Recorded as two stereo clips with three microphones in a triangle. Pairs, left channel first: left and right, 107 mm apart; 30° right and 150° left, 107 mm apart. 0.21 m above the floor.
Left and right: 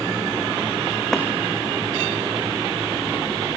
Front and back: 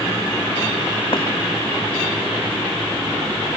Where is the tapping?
5° left, 3.5 m.